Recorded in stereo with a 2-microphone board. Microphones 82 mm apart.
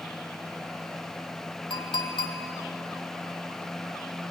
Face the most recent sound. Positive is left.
turn(degrees=80)